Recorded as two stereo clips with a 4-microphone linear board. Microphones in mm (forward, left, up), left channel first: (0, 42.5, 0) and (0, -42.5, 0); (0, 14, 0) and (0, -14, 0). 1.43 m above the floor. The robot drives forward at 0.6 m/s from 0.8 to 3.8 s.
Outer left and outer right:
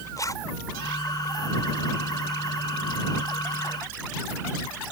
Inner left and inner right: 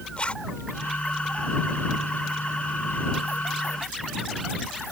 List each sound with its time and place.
0.2 s a zipper: 40° left (ahead or behind)